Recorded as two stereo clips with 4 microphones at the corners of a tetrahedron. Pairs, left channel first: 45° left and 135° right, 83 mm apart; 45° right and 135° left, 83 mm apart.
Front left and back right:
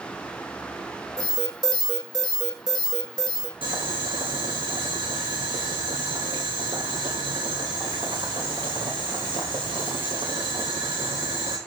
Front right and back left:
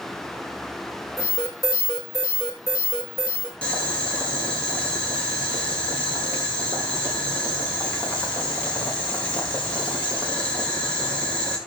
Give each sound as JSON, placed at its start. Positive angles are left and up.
{"t": 1.2, "sound": "an alarm", "azimuth_deg": -100, "distance_m": 6.0}
{"t": 3.6, "sound": "boiling", "azimuth_deg": -120, "distance_m": 5.5}